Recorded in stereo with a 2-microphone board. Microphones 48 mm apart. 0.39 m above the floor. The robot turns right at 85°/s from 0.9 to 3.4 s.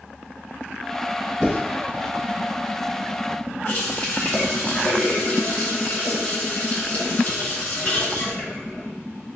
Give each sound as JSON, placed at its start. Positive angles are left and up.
{"t": 1.4, "sound": "writing", "side_deg": -15, "distance_m": 1.5}
{"t": 3.6, "sound": "a running tap", "side_deg": 50, "distance_m": 1.1}